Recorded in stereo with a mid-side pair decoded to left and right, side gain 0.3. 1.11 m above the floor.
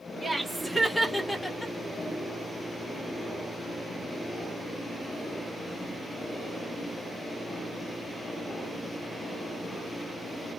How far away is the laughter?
About 1.6 m.